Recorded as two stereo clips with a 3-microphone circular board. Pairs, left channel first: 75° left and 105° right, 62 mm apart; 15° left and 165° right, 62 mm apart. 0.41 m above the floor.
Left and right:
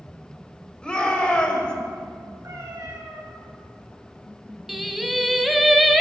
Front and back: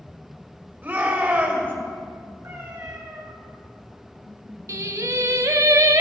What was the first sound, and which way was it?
A shout, 145° left.